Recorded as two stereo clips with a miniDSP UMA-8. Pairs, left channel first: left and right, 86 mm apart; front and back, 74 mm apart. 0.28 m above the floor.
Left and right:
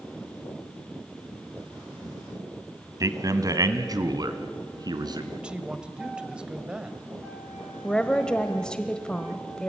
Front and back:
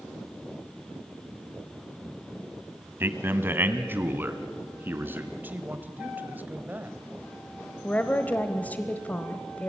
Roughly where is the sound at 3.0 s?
Behind right.